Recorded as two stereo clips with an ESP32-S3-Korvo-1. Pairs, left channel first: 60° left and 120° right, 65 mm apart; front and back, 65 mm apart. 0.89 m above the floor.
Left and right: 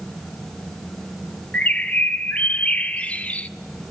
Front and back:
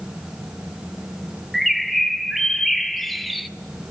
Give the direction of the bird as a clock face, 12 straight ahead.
9 o'clock.